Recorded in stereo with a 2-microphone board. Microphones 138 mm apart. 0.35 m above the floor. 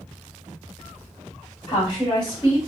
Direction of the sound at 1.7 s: 40° left (ahead or behind).